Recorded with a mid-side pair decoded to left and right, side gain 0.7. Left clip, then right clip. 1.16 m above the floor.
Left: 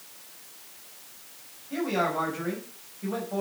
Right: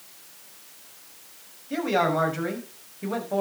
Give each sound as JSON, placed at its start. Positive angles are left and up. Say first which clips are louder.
{"t": 1.7, "sound": "a man speaking", "louder": "right 4 dB", "azimuth_deg": -35, "distance_m": 5.5}